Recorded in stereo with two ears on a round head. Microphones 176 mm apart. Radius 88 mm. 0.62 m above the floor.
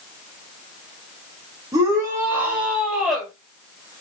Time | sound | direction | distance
1.7 | a shout | 20° right (ahead or behind) | 3 m